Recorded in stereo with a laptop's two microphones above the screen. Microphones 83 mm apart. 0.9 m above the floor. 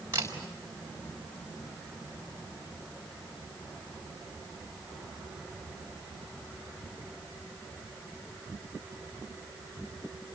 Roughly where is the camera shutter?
Right.